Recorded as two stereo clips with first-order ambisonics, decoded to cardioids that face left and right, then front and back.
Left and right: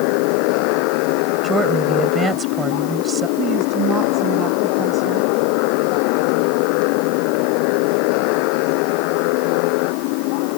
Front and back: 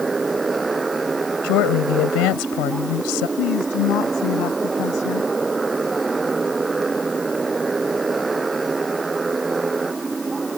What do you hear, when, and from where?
0.0 s a motorcycle: 100° left
1.4 s a woman speaking: 20° right
3.4 s a woman speaking: 35° right